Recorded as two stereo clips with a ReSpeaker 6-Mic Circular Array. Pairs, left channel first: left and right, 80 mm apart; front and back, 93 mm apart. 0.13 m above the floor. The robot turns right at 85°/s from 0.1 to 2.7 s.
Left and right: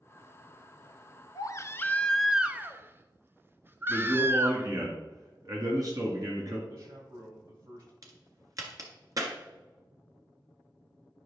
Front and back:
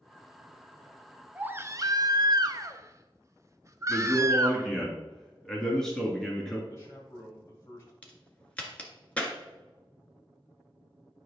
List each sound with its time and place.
1.4 s a baby crying: 105° left, 0.6 m; by 4.7 s 140° right, 0.6 m
3.9 s a man speaking: 85° right, 2.5 m
6.7 s a man speaking: 60° right, 4 m
8.0 s a crack: 75° right, 1.6 m